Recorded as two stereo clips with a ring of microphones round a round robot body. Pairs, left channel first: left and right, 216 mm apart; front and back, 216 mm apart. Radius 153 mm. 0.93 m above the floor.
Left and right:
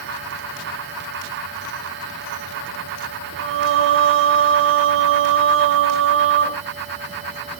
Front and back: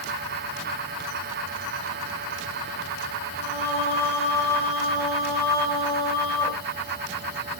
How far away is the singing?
About 3 m.